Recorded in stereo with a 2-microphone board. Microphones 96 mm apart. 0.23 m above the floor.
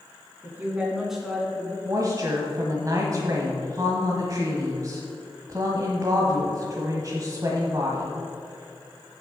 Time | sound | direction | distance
0.4 | a woman speaking | 20° right (ahead or behind) | 2 m
1.9 | a woman speaking | 35° right (ahead or behind) | 1.2 m